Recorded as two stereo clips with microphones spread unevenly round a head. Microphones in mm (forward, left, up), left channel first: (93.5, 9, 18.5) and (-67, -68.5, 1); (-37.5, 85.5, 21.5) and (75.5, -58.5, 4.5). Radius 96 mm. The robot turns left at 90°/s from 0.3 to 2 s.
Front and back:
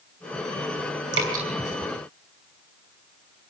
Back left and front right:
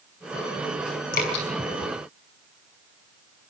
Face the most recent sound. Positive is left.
turn(degrees=95)